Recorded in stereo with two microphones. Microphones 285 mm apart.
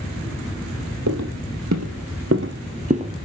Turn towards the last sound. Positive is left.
turn(degrees=-15)  # may be behind; listen again after turning